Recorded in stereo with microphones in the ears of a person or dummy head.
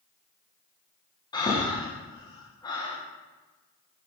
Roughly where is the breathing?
Left.